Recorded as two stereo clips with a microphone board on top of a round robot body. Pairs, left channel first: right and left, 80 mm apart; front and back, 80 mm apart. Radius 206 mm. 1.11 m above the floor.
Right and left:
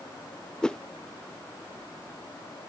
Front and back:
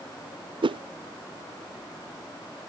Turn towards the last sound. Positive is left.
turn(degrees=-170)